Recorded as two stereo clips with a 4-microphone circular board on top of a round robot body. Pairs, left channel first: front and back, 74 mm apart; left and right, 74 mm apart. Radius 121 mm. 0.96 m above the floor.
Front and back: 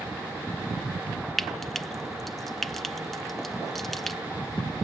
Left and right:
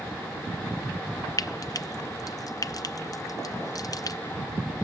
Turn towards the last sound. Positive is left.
turn(degrees=85)